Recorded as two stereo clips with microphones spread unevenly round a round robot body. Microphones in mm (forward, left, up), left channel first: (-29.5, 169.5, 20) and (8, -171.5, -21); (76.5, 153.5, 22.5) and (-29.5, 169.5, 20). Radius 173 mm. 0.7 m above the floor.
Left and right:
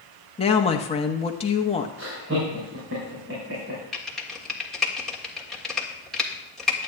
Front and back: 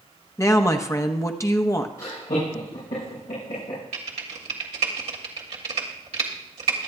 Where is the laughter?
30° right, 5.5 m.